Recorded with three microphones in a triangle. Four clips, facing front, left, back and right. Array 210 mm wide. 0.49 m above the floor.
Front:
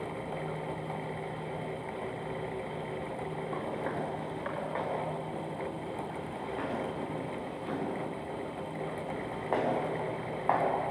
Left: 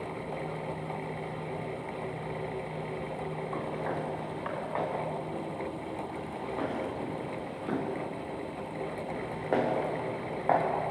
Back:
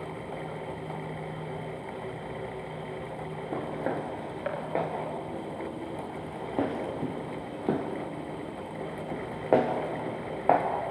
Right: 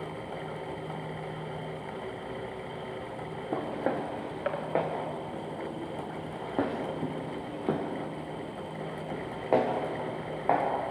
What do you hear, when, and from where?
3.5 s footsteps: 120° right, 5 m; by 10.7 s straight behind, 4.5 m